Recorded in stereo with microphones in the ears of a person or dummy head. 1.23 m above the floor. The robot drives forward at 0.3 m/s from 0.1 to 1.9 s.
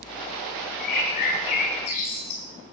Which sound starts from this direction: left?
A bird, at 0.8 s.